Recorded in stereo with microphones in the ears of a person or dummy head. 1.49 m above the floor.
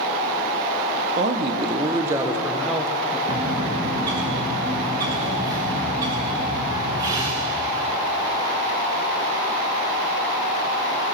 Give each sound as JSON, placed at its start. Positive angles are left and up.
{"t": 1.2, "sound": "a man speaking", "side_deg": -35, "distance_m": 1.1}
{"t": 3.3, "sound": "a bird", "side_deg": -30, "distance_m": 1.4}